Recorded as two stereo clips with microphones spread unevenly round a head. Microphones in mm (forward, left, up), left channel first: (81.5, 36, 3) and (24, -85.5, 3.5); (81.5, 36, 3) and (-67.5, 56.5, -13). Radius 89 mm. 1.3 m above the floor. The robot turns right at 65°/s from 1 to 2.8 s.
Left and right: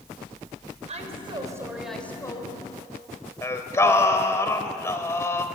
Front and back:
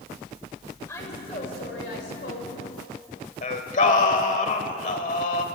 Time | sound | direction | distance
0.9 | a woman speaking | 85° right | 4.5 m
3.4 | singing | straight ahead | 1.7 m